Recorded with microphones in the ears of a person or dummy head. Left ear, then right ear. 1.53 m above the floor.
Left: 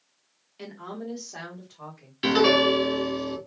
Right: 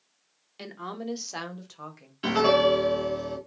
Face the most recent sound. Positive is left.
turn(degrees=30)  # may be behind; listen again after turning